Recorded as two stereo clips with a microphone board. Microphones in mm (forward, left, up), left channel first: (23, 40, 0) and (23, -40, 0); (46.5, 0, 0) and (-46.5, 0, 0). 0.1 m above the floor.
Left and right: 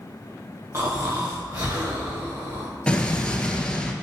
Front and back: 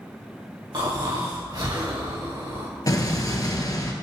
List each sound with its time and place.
0.7 s snoring: 145° right, 2.5 m
2.9 s an explosion: 20° left, 0.9 m